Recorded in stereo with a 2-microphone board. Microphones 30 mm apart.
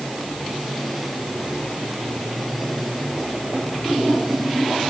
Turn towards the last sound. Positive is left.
No sound to turn to.